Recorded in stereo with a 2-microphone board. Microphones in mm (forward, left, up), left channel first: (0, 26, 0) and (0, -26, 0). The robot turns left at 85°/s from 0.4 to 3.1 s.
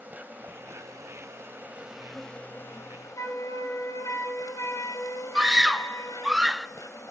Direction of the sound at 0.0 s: 35° right.